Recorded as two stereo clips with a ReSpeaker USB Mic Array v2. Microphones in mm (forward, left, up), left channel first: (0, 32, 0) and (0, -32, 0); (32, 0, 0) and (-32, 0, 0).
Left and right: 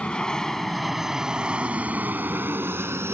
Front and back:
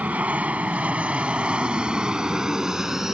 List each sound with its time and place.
0.0 s an aircraft: 145° left; by 3.1 s 100° right